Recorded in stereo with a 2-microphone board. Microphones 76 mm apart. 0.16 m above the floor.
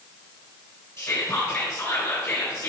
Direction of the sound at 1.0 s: 40° left (ahead or behind).